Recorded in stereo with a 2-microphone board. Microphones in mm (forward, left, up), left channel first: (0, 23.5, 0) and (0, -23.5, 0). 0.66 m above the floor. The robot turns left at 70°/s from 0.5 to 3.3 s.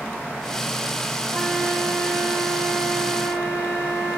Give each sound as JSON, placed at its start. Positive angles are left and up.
{"t": 1.3, "sound": "a flute", "azimuth_deg": -55, "distance_m": 1.8}